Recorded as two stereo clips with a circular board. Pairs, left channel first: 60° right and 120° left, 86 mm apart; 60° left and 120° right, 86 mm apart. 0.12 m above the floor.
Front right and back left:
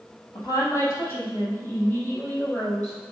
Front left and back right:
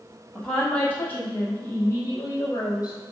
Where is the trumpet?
I don't hear a trumpet.